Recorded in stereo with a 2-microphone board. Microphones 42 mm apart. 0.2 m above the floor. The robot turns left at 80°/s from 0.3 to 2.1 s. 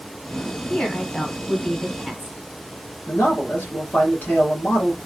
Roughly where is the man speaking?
Left.